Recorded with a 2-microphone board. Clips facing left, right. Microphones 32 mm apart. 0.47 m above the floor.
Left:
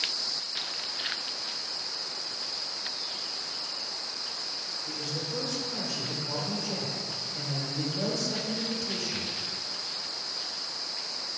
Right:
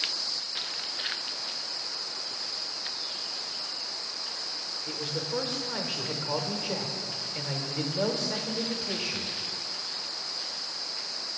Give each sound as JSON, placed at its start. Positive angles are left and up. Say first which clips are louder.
{"t": 4.9, "sound": "a man speaking", "louder": "right 3 dB", "side_deg": -40, "distance_m": 1.0}